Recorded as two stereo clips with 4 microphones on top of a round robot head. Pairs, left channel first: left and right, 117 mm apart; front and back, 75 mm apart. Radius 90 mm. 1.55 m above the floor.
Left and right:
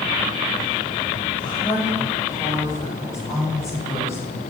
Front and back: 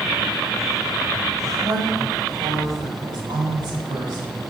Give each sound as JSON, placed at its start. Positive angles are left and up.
{"t": 1.4, "sound": "a woman speaking", "azimuth_deg": 145, "distance_m": 6.5}